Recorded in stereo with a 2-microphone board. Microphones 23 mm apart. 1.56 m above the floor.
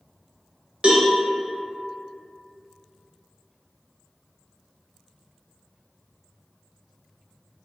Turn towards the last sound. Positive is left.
turn(degrees=-45)  # may be behind; listen again after turning